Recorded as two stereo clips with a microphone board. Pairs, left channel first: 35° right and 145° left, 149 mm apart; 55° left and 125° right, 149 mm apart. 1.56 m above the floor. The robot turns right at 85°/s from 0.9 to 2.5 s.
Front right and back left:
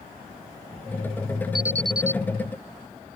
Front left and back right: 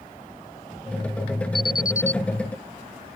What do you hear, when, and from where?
1.6 s an alarm: 55° left; by 2.2 s 110° left